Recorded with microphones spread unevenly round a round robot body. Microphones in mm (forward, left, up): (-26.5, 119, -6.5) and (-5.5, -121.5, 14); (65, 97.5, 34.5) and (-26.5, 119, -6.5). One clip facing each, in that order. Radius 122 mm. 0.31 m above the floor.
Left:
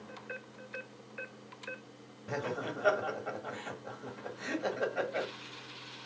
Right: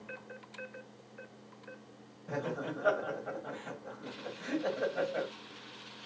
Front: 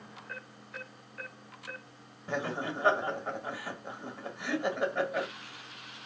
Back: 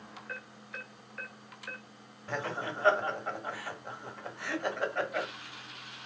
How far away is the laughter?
About 1.2 m.